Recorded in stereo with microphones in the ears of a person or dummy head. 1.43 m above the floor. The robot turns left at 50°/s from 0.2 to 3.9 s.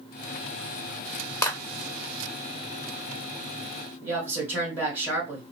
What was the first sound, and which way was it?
A clap, 15° left (ahead or behind).